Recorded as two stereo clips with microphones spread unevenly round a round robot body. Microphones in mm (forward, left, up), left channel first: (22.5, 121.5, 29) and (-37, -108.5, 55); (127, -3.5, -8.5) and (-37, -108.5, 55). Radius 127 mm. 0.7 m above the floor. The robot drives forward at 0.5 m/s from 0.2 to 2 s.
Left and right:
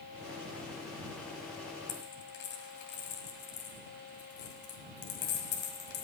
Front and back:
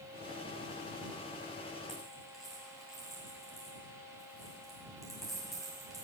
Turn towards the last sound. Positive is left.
turn(degrees=125)